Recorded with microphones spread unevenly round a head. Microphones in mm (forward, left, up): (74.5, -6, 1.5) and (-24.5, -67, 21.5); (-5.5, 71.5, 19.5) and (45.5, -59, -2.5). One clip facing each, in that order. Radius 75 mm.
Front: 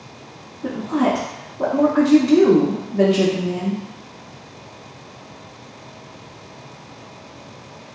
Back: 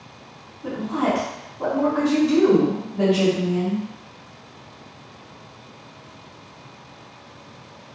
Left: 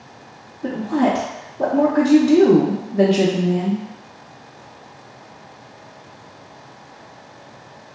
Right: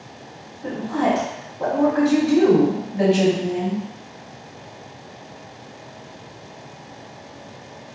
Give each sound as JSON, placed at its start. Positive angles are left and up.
{"t": 0.6, "sound": "a woman speaking", "azimuth_deg": 80, "distance_m": 0.5}